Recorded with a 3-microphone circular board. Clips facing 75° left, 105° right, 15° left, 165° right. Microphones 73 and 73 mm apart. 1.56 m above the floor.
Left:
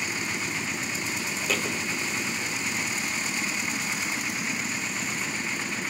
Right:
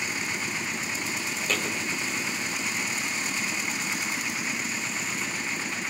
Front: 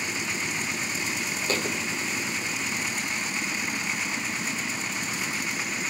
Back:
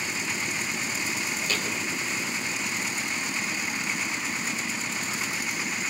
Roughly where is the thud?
Ahead.